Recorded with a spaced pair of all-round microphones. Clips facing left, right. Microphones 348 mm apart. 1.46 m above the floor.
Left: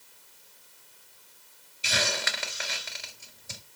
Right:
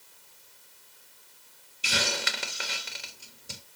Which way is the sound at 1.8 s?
45° right (ahead or behind).